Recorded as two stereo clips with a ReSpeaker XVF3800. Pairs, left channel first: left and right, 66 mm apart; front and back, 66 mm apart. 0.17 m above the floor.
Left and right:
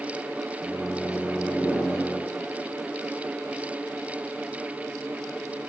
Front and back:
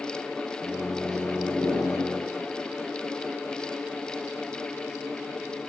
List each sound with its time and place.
0.6 s a microwave: 10° right, 1.8 m